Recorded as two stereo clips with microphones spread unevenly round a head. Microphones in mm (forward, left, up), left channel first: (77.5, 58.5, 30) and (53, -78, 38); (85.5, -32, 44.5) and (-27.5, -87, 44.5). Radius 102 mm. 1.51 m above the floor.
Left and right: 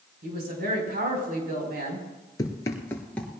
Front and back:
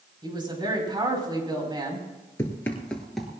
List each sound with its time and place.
0.2 s a woman speaking: 100° right, 5 m
2.4 s running footsteps: 60° left, 1.5 m; by 3.4 s 155° left, 1.4 m